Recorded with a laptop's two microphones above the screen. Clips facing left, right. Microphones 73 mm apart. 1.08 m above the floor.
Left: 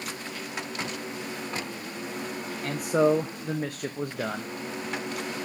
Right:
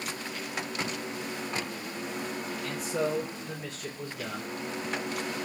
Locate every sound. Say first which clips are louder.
2.6 s a man speaking: left 9 dB; 55° left (ahead or behind), 0.6 m